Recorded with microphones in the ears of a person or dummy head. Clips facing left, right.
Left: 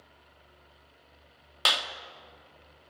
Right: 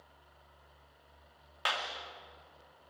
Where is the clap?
55° left (ahead or behind), 1.9 m.